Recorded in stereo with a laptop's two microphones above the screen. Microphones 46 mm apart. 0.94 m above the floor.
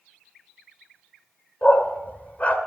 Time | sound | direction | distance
1.6 | a dog barking | 35° left (ahead or behind) | 1.5 m